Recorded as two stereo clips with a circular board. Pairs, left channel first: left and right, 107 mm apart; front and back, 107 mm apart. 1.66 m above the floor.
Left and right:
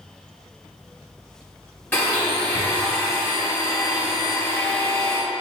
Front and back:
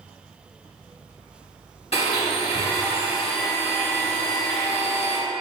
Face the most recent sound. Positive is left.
turn(degrees=20)